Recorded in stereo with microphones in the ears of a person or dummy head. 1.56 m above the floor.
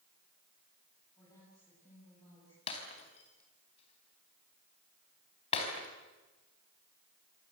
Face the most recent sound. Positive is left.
turn(degrees=35)  # may be behind; listen again after turning